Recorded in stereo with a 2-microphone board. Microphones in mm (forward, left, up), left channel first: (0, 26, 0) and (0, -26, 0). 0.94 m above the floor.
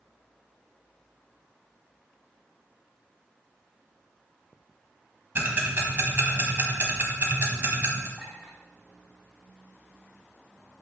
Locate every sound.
5.3 s ticking: 45° right (ahead or behind), 1.3 m
8.2 s a clink: 10° left (ahead or behind), 2.5 m